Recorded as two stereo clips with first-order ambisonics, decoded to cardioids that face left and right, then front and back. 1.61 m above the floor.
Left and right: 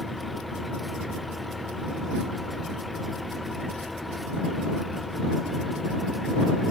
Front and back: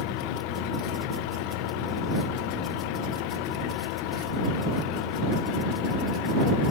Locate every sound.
0.0 s an engine running: 5° left